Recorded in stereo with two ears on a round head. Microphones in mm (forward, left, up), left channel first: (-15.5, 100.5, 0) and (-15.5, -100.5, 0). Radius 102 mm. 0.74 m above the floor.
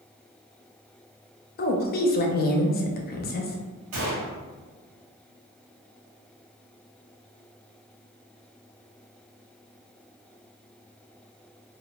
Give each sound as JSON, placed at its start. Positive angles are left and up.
{"t": 1.6, "sound": "a woman speaking", "side_deg": 45, "distance_m": 0.7}
{"t": 3.9, "sound": "a gunshot", "side_deg": -80, "distance_m": 1.9}